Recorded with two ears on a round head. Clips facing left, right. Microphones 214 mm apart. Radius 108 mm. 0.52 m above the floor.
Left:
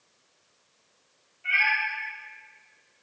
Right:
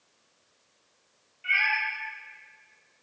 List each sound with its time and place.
1.4 s a cat meowing: 65° right (ahead or behind), 1.9 m